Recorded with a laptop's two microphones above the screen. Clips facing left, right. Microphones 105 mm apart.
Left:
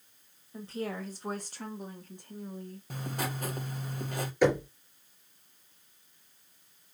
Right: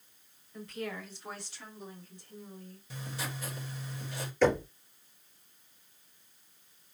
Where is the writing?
50° left (ahead or behind), 0.9 m.